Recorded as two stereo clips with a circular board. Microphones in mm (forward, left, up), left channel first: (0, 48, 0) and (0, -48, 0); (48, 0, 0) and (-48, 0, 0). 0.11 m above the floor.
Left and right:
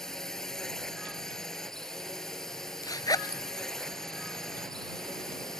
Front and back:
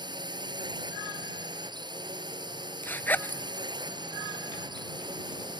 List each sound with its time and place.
0.0 s a drone: 175° left
2.8 s a zipper: 60° left